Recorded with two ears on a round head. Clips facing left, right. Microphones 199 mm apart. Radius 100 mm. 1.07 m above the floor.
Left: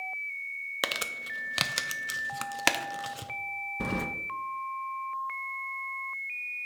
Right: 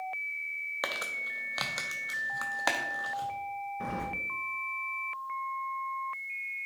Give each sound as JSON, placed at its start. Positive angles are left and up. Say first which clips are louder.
{"t": 0.8, "sound": "crumpling", "louder": "left 2 dB", "side_deg": 35, "distance_m": 0.5}
{"t": 3.8, "sound": "keys jangling", "louder": "left 6 dB", "side_deg": 50, "distance_m": 0.6}